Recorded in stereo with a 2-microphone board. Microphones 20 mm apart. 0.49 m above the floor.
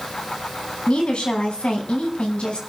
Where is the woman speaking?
75° left (ahead or behind), 4.5 m; by 2.6 s 65° left (ahead or behind), 4.5 m.